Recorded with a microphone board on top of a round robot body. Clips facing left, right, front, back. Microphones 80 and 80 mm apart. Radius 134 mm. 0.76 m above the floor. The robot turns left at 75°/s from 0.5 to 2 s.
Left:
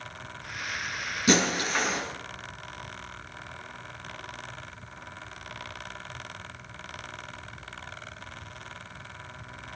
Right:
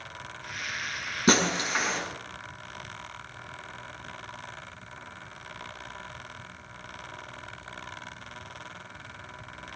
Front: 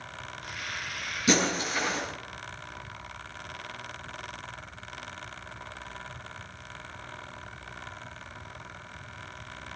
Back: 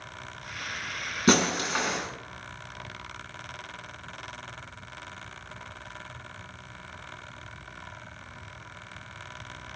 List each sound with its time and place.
1.3 s breaking glass: 135° right, 5.5 m; by 2.0 s 170° left, 5.5 m